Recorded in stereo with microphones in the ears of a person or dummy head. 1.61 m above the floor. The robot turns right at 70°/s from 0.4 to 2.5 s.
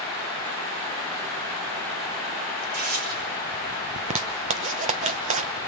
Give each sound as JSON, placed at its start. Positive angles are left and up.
{"t": 2.6, "sound": "tearing paper", "side_deg": -50, "distance_m": 7.0}
{"t": 4.0, "sound": "a zipper", "side_deg": -35, "distance_m": 1.1}